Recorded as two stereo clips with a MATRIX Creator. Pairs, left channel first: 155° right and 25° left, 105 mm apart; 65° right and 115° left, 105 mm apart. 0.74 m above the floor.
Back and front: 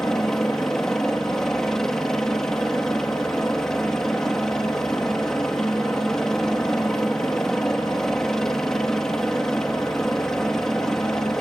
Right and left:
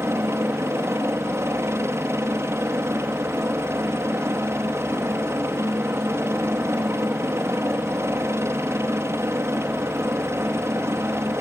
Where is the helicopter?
125° left.